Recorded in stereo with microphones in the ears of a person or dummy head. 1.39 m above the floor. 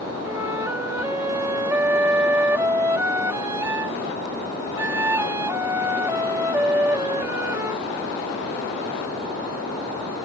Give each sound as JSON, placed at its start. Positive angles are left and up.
{"t": 0.2, "sound": "a flute", "side_deg": -15}